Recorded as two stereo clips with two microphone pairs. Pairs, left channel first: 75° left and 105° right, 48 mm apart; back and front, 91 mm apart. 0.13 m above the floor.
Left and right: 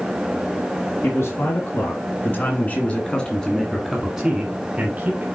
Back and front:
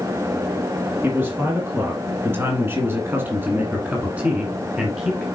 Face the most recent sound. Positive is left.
turn(degrees=-80)